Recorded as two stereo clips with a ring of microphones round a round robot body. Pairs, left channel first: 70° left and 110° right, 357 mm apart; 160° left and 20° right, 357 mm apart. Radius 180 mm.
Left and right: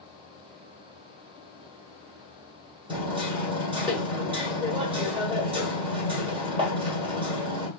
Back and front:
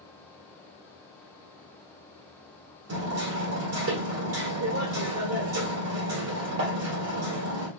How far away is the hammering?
About 1.4 m.